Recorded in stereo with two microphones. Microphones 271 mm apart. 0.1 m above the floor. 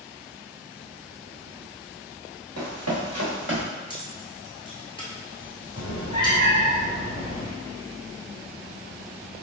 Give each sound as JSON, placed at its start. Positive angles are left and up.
{"t": 2.6, "sound": "running footsteps", "side_deg": -75, "distance_m": 1.7}
{"t": 3.9, "sound": "keys jangling", "side_deg": 20, "distance_m": 1.0}
{"t": 5.8, "sound": "a cat meowing", "side_deg": 60, "distance_m": 1.7}